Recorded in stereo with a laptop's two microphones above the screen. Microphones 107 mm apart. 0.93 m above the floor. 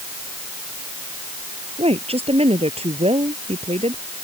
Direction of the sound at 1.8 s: 70° right (ahead or behind).